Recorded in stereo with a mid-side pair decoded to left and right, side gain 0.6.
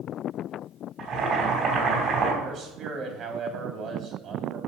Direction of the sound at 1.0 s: 50° right.